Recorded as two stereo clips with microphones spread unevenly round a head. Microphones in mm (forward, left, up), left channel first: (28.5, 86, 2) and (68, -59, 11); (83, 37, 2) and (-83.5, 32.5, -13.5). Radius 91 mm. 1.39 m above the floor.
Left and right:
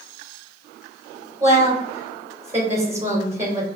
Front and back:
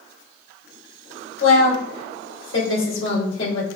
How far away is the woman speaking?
About 2.5 m.